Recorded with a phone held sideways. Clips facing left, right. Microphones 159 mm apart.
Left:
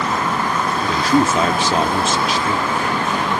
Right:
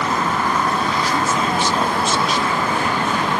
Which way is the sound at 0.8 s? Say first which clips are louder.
Left 4 dB; 85° left.